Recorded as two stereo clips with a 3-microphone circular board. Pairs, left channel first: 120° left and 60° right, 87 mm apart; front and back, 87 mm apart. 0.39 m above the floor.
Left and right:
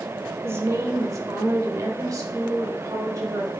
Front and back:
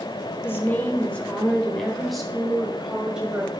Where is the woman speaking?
35° right, 1.1 m; by 3.5 s 100° right, 2.0 m.